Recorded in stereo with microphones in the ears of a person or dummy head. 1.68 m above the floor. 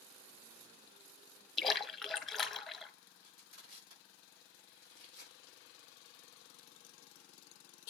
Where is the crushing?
65° right (ahead or behind), 6 m.